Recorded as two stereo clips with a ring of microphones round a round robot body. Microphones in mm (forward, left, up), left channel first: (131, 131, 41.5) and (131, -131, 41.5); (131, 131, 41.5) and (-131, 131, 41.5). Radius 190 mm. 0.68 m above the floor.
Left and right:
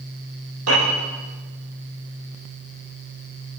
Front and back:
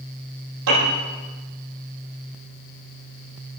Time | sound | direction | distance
0.7 | a piano | 140° right | 8 m